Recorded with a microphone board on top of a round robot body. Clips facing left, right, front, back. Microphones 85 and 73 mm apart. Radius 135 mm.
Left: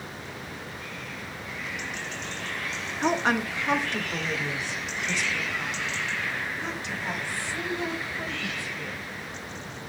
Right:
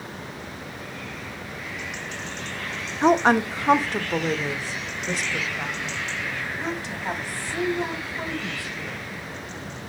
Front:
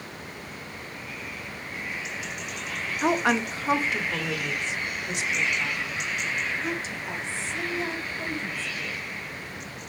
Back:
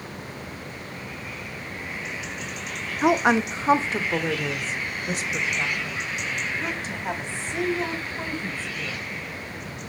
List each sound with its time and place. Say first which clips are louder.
3.0 s a woman speaking: right 7 dB, back 4 dB; 115° right, 1.0 m; by 9.0 s 140° right, 4 m